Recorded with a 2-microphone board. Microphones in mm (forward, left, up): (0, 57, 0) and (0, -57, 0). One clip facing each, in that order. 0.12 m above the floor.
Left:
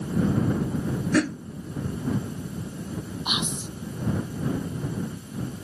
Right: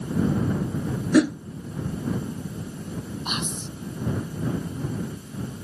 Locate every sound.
1.1 s a whoosh: 15° right (ahead or behind)
3.2 s whispering: 5° left (ahead or behind)